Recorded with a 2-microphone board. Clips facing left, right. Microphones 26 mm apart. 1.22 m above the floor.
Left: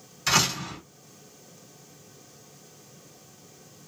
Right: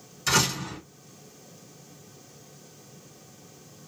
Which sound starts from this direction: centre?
A door slam, at 0.3 s.